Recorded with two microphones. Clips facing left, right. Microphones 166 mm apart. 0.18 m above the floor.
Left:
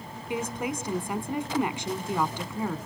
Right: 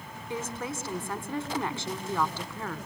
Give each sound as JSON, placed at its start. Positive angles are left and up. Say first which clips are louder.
{"t": 0.3, "sound": "a woman speaking", "louder": "left 4 dB", "side_deg": 15, "distance_m": 1.4}